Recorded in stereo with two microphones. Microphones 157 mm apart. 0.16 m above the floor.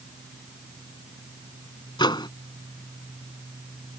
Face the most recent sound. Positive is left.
turn(degrees=30)  # may be behind; listen again after turning